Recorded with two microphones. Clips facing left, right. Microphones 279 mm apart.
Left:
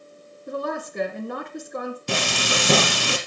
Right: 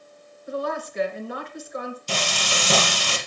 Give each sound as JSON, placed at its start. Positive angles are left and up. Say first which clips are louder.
{"t": 0.5, "sound": "a woman speaking", "louder": "even", "side_deg": 55, "distance_m": 2.5}
{"t": 2.1, "sound": "frying", "louder": "left 5 dB", "side_deg": 70, "distance_m": 1.8}